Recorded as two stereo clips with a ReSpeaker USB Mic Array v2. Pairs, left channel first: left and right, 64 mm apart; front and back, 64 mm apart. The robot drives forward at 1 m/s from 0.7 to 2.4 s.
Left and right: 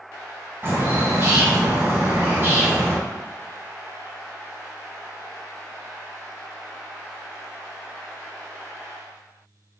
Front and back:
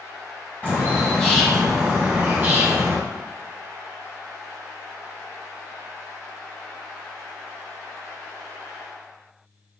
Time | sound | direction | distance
0.6 | a bird | 50° right | 1.7 m